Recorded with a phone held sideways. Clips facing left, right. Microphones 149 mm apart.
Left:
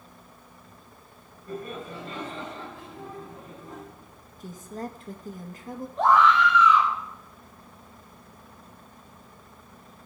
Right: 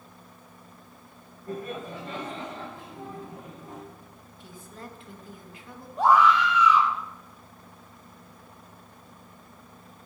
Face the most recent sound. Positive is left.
turn(degrees=-10)  # may be behind; listen again after turning